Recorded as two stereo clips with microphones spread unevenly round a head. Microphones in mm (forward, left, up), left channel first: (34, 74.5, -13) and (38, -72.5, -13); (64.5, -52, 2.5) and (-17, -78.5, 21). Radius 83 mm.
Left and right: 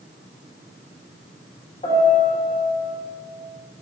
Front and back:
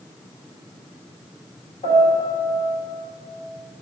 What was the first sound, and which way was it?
A piano, 45° left.